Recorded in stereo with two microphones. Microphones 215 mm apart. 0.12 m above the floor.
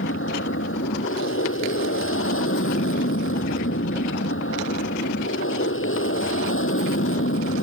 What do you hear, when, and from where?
0.0 s an aircraft: 75° left (ahead or behind); by 7.6 s 70° left (ahead or behind)